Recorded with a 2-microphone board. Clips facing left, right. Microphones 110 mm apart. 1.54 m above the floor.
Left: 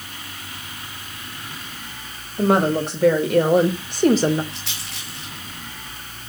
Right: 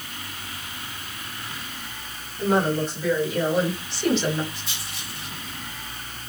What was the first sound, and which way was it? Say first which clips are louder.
A woman speaking: left 4 dB; 75° left (ahead or behind).